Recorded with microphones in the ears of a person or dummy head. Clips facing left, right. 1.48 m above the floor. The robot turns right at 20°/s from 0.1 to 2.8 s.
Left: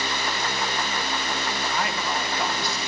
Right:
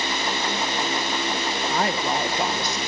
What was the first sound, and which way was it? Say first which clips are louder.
A woman speaking: right 6 dB; 40° right (ahead or behind).